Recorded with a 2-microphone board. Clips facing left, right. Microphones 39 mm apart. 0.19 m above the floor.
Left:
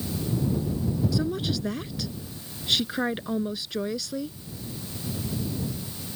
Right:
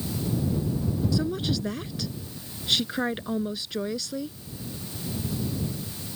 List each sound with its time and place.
1.1 s a woman speaking: centre (ahead or behind)